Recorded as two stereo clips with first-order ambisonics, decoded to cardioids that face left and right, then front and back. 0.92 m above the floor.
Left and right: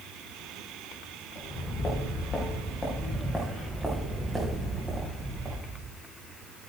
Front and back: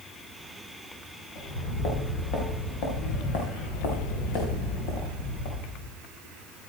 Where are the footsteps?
30° left, 4.5 m; by 6.0 s 25° right, 3.5 m.